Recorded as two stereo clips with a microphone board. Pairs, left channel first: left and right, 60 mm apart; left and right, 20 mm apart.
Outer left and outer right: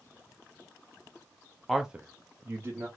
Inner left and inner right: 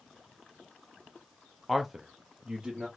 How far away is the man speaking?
About 0.6 m.